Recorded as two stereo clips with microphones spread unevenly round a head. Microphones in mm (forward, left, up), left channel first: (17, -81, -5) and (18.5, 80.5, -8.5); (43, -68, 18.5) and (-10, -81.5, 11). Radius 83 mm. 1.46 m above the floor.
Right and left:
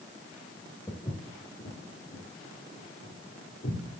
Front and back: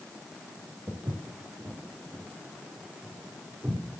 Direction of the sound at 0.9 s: 155° right.